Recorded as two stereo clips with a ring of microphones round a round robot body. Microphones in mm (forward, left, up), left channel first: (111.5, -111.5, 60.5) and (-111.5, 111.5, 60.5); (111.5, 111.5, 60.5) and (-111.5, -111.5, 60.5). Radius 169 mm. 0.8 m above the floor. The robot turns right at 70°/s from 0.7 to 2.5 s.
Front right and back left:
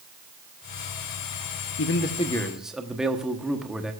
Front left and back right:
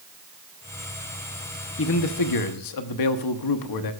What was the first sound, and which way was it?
A man speaking, 5° right.